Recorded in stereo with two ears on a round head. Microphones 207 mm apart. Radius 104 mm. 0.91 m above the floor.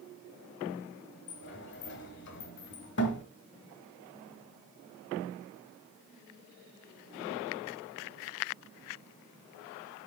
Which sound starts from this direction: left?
A sliding door, at 1.3 s.